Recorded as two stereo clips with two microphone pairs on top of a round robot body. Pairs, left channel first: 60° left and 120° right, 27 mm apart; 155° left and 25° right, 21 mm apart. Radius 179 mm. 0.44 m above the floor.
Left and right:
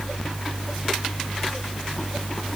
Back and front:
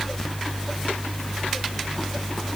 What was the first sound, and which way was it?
Only background noise.